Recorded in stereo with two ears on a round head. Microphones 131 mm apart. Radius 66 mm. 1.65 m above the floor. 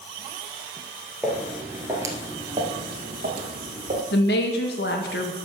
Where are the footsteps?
5° right (ahead or behind), 3 m; by 4.0 s 45° right (ahead or behind), 3 m.